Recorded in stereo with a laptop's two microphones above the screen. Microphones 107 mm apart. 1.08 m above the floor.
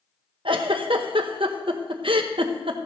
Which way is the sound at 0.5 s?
60° right (ahead or behind).